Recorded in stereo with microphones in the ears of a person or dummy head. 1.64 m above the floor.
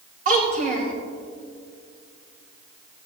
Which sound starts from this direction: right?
A child speaking, at 0.2 s.